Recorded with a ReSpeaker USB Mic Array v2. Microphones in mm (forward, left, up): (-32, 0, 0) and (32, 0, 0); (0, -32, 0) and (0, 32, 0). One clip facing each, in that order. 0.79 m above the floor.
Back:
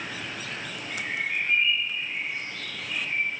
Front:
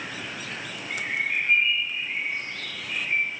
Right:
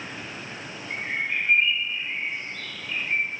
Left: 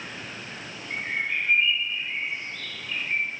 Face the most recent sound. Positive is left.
turn(degrees=-40)